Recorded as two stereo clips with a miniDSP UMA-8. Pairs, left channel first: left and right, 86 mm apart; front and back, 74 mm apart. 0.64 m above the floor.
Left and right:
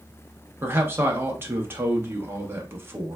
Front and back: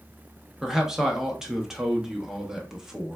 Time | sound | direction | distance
0.6 | a man speaking | 105° right | 0.6 m